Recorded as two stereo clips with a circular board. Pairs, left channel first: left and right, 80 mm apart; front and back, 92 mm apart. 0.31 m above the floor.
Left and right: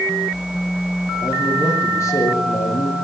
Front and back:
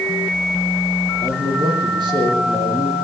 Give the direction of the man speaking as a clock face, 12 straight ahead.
7 o'clock.